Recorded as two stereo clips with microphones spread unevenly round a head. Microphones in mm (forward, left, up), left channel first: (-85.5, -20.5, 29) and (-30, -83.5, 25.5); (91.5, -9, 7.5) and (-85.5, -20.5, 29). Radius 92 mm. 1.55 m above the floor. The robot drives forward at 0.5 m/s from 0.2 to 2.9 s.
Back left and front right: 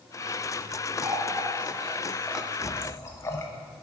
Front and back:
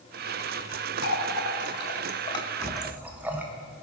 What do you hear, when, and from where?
1.0 s a running tap: 15° left, 0.9 m; by 3.5 s 120° left, 0.5 m